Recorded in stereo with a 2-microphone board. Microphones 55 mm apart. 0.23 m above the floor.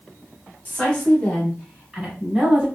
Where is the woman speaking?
35° left (ahead or behind), 1.5 m; by 2.7 s 20° right (ahead or behind), 1.7 m.